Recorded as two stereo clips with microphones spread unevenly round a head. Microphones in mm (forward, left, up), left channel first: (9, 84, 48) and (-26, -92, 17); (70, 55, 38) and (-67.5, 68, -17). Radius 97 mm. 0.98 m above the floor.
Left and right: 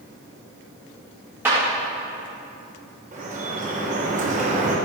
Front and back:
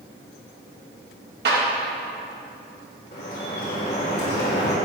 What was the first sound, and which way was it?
A clap, straight behind.